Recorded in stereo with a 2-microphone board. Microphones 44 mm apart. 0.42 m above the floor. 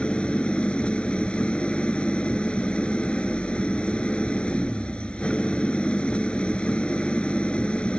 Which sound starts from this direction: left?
An engine running, at 0.0 s.